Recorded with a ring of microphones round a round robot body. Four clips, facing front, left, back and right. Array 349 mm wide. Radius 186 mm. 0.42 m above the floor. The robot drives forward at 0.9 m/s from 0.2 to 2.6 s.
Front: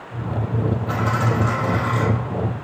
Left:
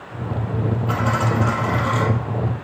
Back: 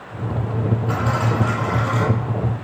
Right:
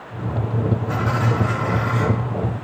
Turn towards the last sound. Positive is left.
turn(degrees=100)